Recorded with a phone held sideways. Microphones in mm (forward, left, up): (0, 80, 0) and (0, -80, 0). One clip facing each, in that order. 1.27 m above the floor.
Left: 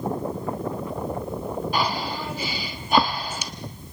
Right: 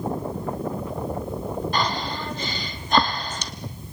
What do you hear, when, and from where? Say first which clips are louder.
1.7 s breathing: even; 10° left (ahead or behind), 1.1 m